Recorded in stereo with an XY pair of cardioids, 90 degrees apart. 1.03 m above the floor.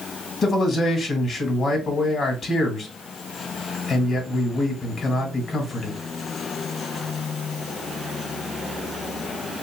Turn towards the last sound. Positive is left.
turn(degrees=50)